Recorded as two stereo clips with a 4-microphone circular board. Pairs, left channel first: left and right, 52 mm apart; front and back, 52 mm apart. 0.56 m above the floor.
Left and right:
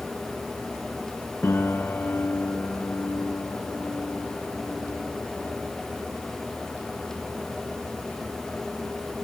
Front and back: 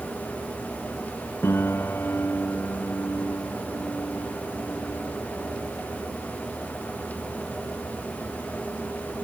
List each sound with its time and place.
1.4 s a piano: 40° left, 1.4 m